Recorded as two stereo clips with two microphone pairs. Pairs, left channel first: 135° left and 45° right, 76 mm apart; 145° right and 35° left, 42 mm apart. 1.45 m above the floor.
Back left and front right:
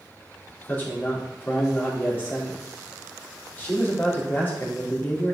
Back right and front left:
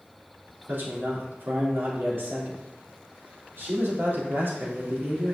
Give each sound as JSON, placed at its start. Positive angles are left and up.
{"t": 0.7, "sound": "a man speaking", "azimuth_deg": 70, "distance_m": 3.5}